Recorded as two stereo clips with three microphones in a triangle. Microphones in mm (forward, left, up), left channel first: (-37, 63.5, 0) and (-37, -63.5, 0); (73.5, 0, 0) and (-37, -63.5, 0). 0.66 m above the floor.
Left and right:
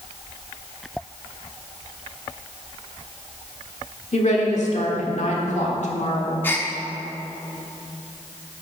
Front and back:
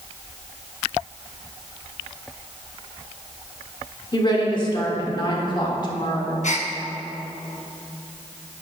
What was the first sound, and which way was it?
A woman speaking, 80° left.